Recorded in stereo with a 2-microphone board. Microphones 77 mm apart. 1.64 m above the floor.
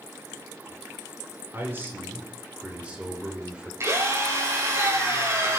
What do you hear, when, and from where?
1.5 s a man speaking: 30° right (ahead or behind), 5 m; by 3.7 s 10° right (ahead or behind), 5.5 m
3.8 s a drill: 40° right (ahead or behind), 7 m